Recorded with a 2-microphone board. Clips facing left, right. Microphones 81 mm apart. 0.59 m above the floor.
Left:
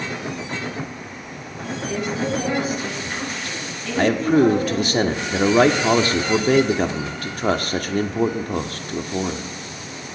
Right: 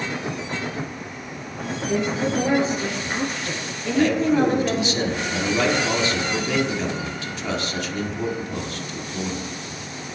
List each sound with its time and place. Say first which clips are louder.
1.9 s a woman speaking: right 2 dB; 25° right (ahead or behind), 9.5 m; by 5.0 s 35° right (ahead or behind), 8.5 m
4.0 s a man speaking: left 2 dB; 45° left (ahead or behind), 1.5 m